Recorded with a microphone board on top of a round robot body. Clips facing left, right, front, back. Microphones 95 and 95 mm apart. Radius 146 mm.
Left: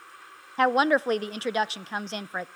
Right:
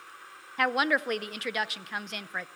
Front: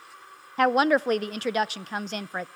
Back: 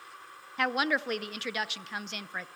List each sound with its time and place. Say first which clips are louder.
0.6 s a woman speaking: left 5 dB, front 8 dB; 40° left, 0.7 m